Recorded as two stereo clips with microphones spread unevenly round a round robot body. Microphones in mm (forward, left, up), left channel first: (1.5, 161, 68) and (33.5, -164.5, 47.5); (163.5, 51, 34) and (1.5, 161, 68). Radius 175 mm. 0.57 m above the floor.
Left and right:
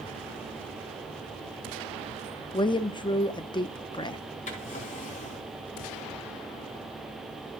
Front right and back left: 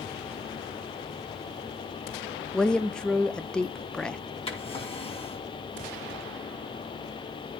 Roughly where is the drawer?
Ahead left.